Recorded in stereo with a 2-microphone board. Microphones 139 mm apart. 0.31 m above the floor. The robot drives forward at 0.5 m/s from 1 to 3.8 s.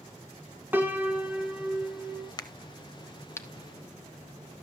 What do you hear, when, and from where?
0.7 s a piano: 15° right (ahead or behind), 1.0 m; by 2.3 s 10° right (ahead or behind), 1.6 m
2.4 s a crack: 30° left (ahead or behind), 0.7 m; by 3.5 s 20° left (ahead or behind), 1.1 m